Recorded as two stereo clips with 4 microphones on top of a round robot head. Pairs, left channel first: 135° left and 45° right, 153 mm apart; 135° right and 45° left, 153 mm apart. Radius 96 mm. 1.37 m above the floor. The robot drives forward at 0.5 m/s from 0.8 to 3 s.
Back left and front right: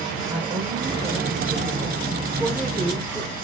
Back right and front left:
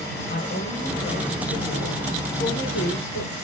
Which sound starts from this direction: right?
A woman speaking, at 0.3 s.